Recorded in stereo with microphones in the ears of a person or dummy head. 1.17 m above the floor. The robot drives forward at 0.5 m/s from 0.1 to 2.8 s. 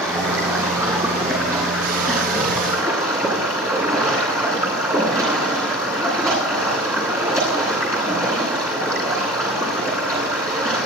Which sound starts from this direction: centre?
Running water, at 0.0 s.